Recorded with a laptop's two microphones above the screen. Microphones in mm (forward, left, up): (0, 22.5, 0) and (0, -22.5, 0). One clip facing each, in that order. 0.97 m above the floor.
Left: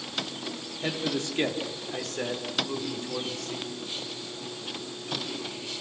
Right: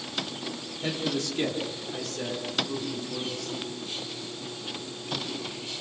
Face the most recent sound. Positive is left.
turn(degrees=65)  # may be behind; listen again after turning